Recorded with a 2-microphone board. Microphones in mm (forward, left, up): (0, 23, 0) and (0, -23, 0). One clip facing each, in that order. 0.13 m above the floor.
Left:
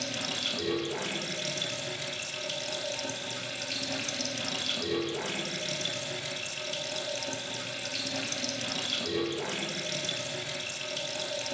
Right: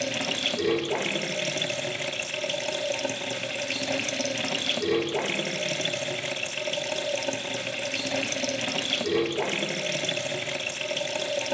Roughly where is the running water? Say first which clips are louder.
Right 6 dB; right.